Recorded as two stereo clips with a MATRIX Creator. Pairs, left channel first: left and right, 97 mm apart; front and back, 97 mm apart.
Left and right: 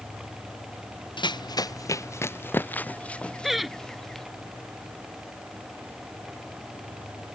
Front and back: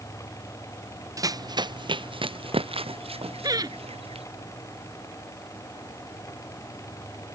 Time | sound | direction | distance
1.2 | running footsteps | 125° left | ?
3.4 | laughter | straight behind | ?